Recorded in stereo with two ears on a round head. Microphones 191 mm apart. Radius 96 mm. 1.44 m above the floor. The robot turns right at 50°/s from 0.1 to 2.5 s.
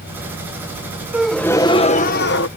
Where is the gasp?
5° right; by 2.5 s 60° left.